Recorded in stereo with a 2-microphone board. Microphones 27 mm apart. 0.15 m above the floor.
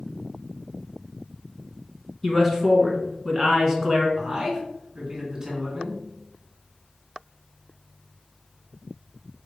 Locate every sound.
2.2 s a man speaking: 10° left (ahead or behind), 1.3 m
4.2 s a man speaking: 25° right (ahead or behind), 1.5 m